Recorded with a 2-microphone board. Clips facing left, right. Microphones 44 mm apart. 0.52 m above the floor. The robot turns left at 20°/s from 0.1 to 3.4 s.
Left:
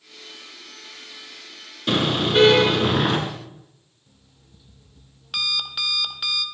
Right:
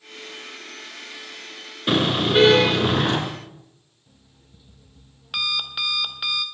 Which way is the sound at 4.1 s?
10° right (ahead or behind).